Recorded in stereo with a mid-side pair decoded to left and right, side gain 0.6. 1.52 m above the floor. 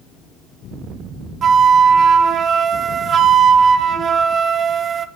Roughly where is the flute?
Ahead right.